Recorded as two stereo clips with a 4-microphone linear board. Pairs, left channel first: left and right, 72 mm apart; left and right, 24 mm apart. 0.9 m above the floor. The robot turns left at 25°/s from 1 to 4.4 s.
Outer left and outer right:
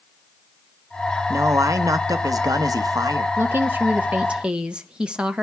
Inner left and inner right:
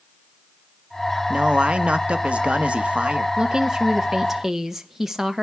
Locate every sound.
1.3 s a man speaking: 50° right, 0.9 m; by 3.3 s 100° right, 0.9 m
3.4 s a woman speaking: 35° right (ahead or behind), 0.7 m; by 5.4 s 15° right (ahead or behind), 0.7 m